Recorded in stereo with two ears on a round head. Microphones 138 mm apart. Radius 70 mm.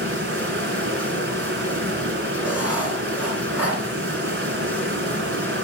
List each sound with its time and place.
0.0 s running water: 75° right (ahead or behind), 2.5 m
2.4 s writing: 10° right (ahead or behind), 2.5 m